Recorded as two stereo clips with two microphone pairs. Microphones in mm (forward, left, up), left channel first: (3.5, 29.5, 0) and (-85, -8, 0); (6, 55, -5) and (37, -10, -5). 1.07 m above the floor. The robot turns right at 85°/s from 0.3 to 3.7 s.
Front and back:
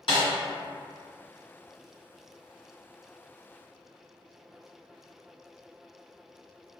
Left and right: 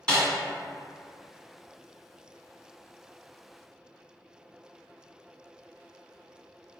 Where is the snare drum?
45° left, 1.6 m.